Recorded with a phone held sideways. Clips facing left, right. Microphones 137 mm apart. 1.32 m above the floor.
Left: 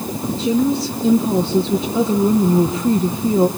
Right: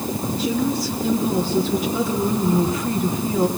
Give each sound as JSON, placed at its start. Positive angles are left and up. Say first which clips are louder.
{"t": 0.3, "sound": "a woman speaking", "louder": "left 6 dB", "side_deg": 25, "distance_m": 1.4}